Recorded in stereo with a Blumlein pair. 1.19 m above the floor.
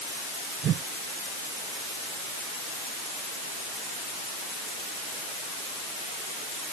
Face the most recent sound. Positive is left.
turn(degrees=-30)